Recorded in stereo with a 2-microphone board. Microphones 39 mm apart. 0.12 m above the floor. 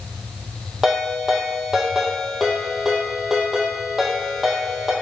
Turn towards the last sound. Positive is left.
turn(degrees=-10)  # may be behind; listen again after turning